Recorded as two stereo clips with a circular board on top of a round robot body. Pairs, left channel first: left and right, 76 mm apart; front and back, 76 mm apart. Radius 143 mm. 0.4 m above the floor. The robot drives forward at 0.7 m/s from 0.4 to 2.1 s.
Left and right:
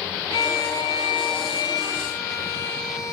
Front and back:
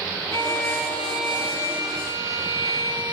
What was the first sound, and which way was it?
A violin, 55° left.